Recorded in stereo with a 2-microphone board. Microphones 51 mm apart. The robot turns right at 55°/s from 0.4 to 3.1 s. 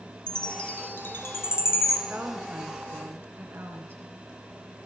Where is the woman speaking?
160° right, 2.5 m; by 4.2 s 105° right, 2.5 m.